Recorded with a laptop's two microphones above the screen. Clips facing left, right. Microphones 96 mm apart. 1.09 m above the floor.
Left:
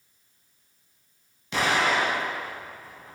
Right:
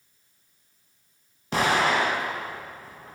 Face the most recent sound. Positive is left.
turn(degrees=-45)  # may be behind; listen again after turning